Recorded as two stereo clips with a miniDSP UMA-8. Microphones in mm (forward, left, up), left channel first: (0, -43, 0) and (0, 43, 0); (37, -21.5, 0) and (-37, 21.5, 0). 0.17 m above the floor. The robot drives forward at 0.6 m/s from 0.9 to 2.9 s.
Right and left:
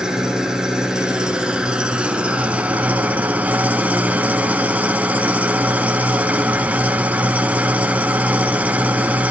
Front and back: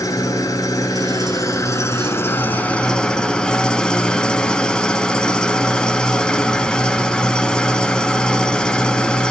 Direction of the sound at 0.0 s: 10° left.